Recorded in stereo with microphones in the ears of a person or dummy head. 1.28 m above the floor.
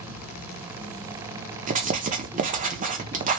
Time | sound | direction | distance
0.0 | an insect | 5° right (ahead or behind) | 1.9 m
1.7 | writing | 35° right (ahead or behind) | 0.7 m